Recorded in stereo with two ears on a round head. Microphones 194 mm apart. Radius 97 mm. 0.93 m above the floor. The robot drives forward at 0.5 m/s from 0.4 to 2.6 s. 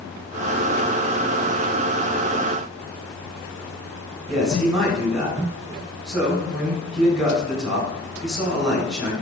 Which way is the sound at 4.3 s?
Centre (ahead or behind).